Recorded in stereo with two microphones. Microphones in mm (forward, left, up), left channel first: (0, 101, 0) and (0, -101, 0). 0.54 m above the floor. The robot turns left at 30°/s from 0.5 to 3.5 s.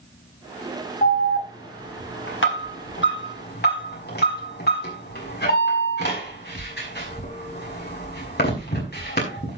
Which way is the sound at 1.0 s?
45° left (ahead or behind).